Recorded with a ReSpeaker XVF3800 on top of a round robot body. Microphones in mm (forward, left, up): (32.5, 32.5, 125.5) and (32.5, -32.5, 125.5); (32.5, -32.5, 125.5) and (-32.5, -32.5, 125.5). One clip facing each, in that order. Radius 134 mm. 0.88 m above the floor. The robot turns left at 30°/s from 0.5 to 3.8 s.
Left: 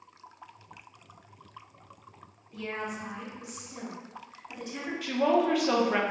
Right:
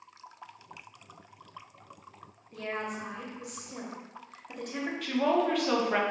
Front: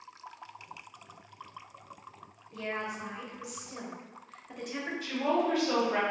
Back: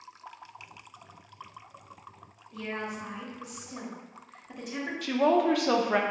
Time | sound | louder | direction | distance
2.5 | a woman speaking | even, even | 50° right | 0.9 m
5.0 | a woman speaking | left 2 dB, back 6 dB | 175° left | 0.5 m